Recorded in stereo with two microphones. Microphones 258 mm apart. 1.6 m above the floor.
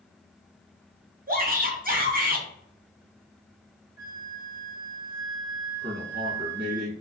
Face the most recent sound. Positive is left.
turn(degrees=-40)  # may be behind; listen again after turning